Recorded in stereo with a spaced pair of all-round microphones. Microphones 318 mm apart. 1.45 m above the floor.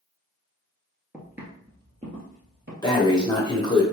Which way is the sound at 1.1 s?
Centre (ahead or behind).